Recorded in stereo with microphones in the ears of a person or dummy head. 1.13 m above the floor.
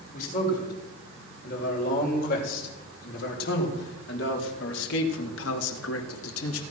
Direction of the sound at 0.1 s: 45° left (ahead or behind).